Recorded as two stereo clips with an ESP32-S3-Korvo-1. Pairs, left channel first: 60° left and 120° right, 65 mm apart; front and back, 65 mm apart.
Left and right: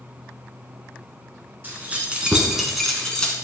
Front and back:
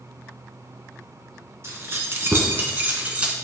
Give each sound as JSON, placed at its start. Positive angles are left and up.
{"t": 1.6, "sound": "keys jangling", "azimuth_deg": -170, "distance_m": 1.4}